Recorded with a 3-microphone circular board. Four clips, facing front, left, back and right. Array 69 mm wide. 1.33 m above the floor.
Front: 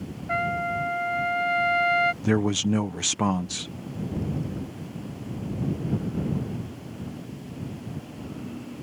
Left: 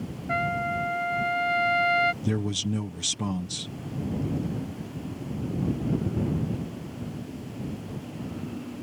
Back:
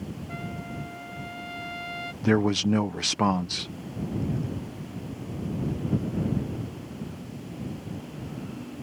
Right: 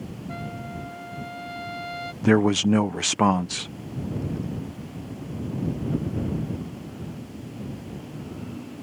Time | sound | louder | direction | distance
0.3 | a trumpet | left 11 dB, front 15 dB | 30° left | ?
2.2 | a man speaking | right 10 dB, back 1 dB | 100° right | ?